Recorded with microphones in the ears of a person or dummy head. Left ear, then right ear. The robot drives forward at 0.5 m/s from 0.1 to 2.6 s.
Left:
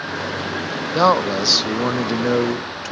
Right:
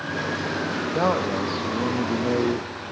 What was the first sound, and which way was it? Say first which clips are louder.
A man speaking: left 8 dB; 45° left (ahead or behind).